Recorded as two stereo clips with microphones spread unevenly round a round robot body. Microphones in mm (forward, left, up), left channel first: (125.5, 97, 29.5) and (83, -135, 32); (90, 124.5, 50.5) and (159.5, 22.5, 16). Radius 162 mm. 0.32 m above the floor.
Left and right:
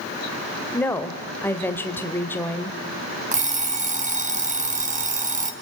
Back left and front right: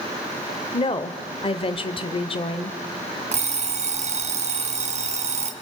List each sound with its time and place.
0.7 s a woman speaking: 155° left, 1.0 m
3.3 s an alarm clock: 40° right, 2.0 m